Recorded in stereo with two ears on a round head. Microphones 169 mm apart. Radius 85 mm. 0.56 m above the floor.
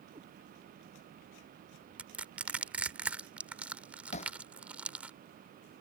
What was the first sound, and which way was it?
A cat meowing, 30° right (ahead or behind).